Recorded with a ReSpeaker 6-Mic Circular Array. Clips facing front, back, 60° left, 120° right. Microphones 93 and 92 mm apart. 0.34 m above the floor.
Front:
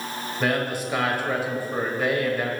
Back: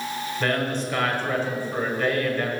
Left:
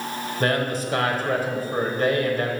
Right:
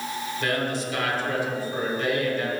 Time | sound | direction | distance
0.4 | a man speaking | 75° left | 1.3 m